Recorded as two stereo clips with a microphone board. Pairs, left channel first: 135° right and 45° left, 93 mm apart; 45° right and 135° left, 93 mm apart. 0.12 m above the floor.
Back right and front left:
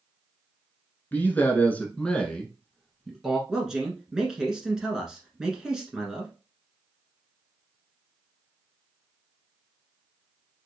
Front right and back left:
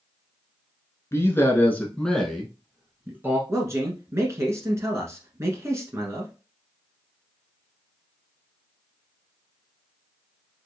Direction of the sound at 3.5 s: 125° left.